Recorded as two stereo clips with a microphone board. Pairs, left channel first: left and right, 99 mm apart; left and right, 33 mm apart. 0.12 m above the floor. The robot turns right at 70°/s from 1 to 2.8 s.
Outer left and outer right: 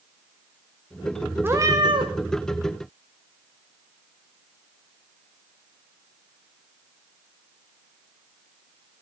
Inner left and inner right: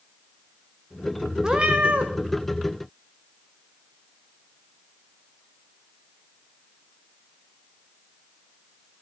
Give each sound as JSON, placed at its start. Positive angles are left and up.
{"t": 1.4, "sound": "a cat meowing", "azimuth_deg": -160, "distance_m": 1.2}